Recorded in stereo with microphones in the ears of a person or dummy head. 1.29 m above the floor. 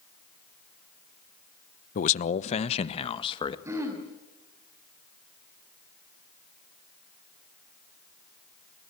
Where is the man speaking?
45° left (ahead or behind), 1.0 m; by 3.5 s 30° left (ahead or behind), 1.9 m.